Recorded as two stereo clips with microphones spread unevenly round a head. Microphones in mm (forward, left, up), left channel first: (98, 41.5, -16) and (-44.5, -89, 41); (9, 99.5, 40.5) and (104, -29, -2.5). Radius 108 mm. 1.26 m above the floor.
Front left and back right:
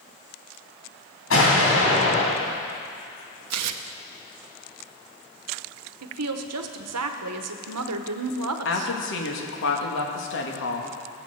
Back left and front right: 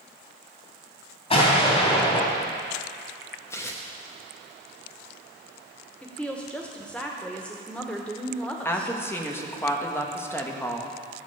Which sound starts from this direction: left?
An explosion, at 1.3 s.